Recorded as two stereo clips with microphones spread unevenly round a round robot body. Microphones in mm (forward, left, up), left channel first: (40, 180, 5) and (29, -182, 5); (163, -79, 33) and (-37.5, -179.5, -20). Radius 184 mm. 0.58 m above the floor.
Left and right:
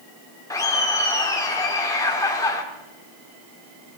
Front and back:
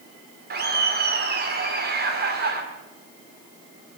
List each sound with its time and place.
0.5 s laughter: 170° left, 1.2 m